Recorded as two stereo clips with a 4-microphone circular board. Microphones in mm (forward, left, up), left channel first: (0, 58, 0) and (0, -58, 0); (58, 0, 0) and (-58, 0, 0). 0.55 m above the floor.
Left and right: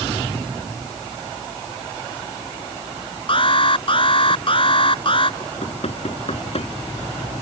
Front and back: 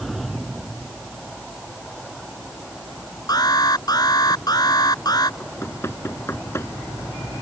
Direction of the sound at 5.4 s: 65° left.